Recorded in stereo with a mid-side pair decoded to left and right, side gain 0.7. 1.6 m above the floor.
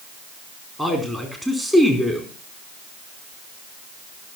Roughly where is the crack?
No crack in this recording.